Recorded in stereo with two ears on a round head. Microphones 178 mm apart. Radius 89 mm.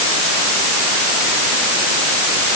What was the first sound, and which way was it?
Only background noise.